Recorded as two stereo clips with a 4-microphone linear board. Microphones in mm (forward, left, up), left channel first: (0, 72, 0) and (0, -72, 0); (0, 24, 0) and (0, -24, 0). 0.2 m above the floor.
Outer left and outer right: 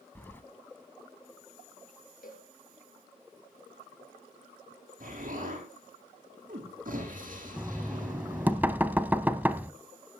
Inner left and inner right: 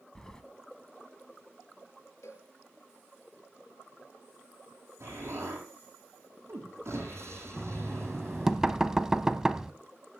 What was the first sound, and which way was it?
Keys jangling, 15° left (ahead or behind).